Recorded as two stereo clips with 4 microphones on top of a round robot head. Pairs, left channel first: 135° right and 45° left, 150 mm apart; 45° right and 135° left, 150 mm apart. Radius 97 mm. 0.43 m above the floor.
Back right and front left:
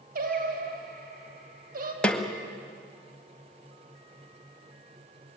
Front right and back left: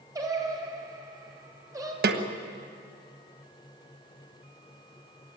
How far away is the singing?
About 2.5 m.